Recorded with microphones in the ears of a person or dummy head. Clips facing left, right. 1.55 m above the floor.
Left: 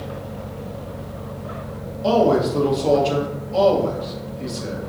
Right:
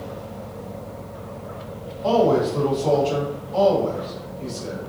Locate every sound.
2.0 s a man speaking: 25° left (ahead or behind), 1.3 m